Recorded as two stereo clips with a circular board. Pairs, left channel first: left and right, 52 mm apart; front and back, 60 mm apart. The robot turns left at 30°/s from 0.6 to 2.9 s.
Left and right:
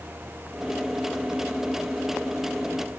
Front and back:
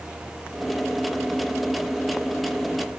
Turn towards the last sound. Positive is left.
No sound to turn to.